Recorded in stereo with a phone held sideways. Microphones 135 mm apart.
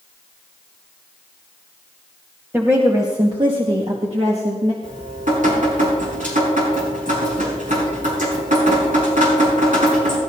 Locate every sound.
2.5 s a woman speaking: 15° right (ahead or behind), 1.3 m; by 4.7 s 60° right (ahead or behind), 1.9 m
4.8 s dripping: 70° right (ahead or behind), 5 m